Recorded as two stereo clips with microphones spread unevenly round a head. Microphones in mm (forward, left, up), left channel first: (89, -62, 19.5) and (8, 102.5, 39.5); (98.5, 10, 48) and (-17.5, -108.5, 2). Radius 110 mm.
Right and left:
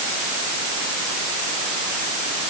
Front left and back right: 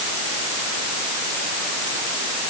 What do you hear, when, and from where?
Only background noise.